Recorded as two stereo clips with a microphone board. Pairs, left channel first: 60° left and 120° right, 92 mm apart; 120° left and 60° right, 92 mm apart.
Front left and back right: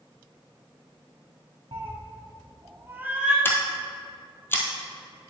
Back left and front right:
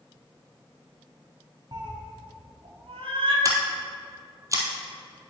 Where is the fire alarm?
I don't hear a fire alarm.